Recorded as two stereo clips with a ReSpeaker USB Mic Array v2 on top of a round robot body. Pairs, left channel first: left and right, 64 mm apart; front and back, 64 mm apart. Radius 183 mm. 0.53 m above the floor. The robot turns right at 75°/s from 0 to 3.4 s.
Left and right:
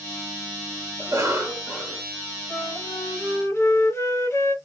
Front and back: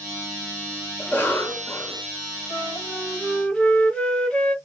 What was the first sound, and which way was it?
A cough, 70° right.